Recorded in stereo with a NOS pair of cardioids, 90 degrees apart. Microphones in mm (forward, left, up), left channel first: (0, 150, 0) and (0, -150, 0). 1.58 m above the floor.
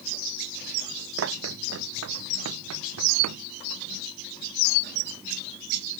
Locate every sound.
1.2 s running footsteps: 50° right; by 3.4 s 65° right